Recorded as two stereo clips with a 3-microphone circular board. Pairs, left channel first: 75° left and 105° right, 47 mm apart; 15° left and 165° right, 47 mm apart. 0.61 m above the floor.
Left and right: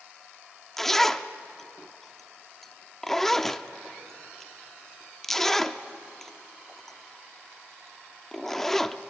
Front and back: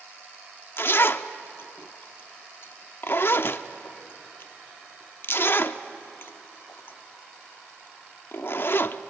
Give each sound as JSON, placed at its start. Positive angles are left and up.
{"t": 0.8, "sound": "a zipper", "azimuth_deg": -5, "distance_m": 0.6}